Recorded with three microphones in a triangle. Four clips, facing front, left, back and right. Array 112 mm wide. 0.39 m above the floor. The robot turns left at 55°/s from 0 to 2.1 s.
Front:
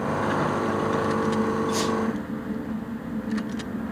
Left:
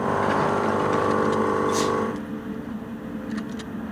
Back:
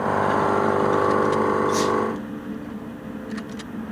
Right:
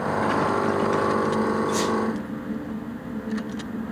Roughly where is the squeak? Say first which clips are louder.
Left 1 dB, back 4 dB; right.